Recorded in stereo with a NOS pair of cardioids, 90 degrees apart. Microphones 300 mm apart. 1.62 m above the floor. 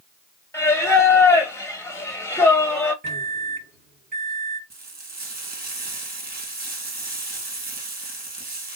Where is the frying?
30° right, 2.5 m.